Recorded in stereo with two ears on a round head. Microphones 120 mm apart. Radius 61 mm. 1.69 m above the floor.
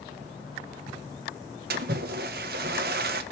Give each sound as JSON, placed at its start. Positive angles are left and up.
{"t": 1.7, "sound": "a splash", "side_deg": -80, "distance_m": 1.6}